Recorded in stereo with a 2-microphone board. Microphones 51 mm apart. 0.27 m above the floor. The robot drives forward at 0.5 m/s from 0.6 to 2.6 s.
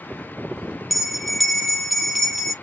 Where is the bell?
5° right (ahead or behind), 0.6 m; by 2.5 s centre (ahead or behind), 1.4 m.